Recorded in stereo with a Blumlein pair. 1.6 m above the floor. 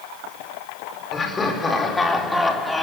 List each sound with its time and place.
1.1 s laughter: 15° left, 4.5 m; by 2.8 s 5° left, 3.5 m